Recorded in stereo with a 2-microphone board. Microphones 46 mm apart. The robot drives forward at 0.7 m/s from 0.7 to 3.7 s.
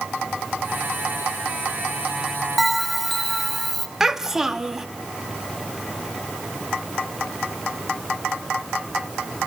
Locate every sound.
2.6 s a bell: centre (ahead or behind), 0.9 m
4.0 s a child speaking: 10° right (ahead or behind), 1.0 m